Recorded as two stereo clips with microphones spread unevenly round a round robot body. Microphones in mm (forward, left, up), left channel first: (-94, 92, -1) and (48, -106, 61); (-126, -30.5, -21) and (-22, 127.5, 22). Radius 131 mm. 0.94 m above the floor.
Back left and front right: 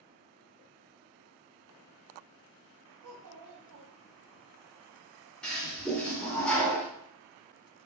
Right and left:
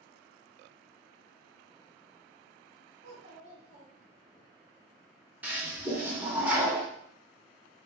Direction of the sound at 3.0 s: 20° right.